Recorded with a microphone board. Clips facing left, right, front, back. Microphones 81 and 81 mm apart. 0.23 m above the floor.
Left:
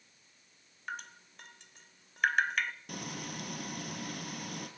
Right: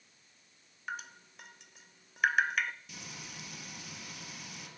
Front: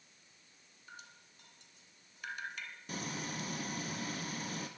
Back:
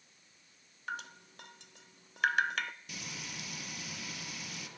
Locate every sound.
0.9 s dripping: 175° right, 0.9 m
2.9 s frying: 50° left, 3 m